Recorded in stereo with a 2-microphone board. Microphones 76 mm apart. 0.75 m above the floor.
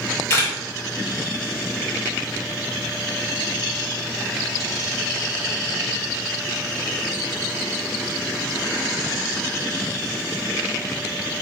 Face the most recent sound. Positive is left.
turn(degrees=35)  # may be behind; listen again after turning